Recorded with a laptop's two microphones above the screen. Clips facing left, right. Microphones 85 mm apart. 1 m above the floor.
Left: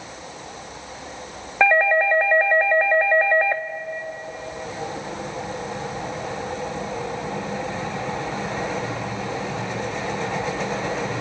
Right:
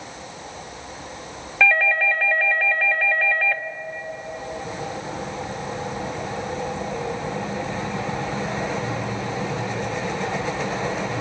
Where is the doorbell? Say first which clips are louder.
Left 3 dB; 25° left (ahead or behind), 1.0 m.